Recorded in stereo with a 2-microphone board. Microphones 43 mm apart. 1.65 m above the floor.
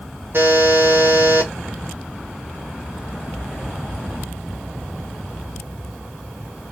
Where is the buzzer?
50° right (ahead or behind), 1.1 m.